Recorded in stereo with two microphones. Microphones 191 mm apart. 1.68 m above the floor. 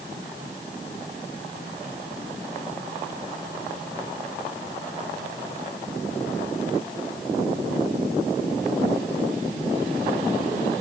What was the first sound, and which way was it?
Only background noise.